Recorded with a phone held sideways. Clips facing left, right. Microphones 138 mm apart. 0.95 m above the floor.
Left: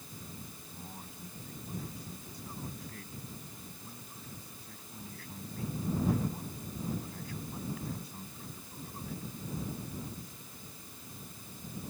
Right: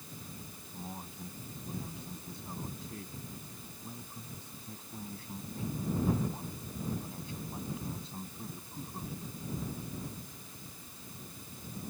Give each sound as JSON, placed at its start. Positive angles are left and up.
{"t": 0.7, "sound": "a man speaking", "side_deg": -25}